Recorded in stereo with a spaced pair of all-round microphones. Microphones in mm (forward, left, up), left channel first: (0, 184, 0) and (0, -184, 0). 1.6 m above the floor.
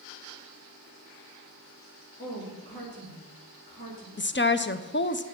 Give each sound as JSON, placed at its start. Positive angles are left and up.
{"t": 2.2, "sound": "a woman speaking", "side_deg": 30, "distance_m": 3.0}
{"t": 4.2, "sound": "a woman speaking", "side_deg": 30, "distance_m": 0.6}